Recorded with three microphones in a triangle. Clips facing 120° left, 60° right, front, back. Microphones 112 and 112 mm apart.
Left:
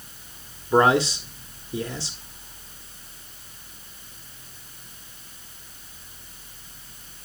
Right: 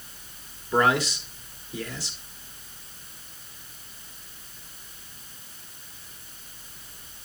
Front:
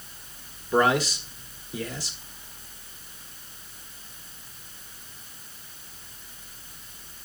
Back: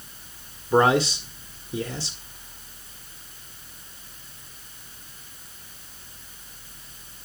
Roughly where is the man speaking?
Behind left.